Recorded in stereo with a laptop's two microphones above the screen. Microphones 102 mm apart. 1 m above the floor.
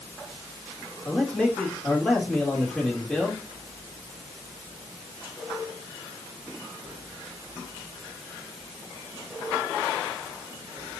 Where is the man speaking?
10° left (ahead or behind), 3.5 m.